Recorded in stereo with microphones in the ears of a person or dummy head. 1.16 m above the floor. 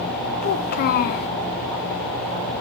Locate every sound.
0.4 s a child speaking: 50° left (ahead or behind), 0.6 m